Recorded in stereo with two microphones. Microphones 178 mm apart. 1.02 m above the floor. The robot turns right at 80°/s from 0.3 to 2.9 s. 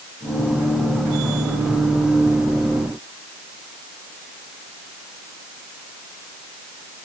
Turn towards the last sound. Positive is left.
No sound to turn to.